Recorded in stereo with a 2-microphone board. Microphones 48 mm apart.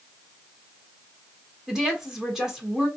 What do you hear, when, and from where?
1.7 s a woman speaking: 10° right (ahead or behind), 1.8 m